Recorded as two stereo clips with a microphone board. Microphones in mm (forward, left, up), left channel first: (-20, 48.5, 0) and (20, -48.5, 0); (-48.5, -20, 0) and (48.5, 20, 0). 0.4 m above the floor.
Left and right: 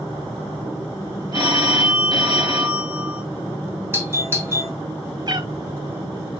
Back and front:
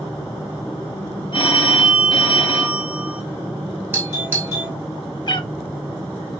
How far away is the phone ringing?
About 1.8 m.